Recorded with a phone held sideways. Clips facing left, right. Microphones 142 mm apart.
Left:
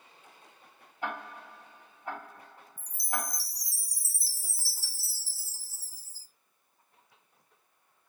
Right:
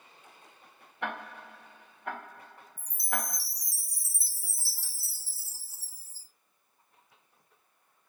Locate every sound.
1.0 s ticking: 75° right (ahead or behind), 2.5 m
2.8 s a chime: 55° right (ahead or behind), 1.0 m